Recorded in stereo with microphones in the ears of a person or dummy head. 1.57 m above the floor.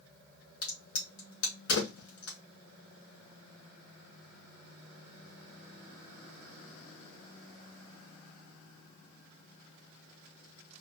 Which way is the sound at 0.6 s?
65° left (ahead or behind).